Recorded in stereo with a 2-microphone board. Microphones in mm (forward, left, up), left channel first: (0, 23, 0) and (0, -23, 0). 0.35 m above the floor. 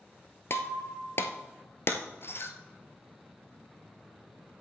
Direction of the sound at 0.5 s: 55° left (ahead or behind).